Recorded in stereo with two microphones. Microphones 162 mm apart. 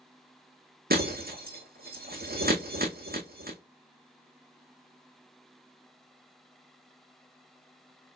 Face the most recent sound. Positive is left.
turn(degrees=-70)  # may be behind; listen again after turning